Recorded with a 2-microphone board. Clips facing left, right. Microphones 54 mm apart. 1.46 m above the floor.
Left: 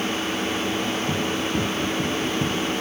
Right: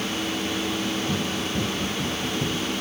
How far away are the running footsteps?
About 3.5 m.